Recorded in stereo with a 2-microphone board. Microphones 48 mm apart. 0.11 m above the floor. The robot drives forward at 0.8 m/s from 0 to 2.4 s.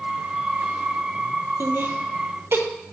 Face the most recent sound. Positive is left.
turn(degrees=-60)  # may be behind; listen again after turning